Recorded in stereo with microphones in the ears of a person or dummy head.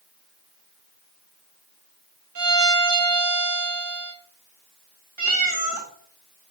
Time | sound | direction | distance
2.4 | a violin | 85° right | 4.5 m
5.2 | a cat meowing | 45° right (ahead or behind) | 1.5 m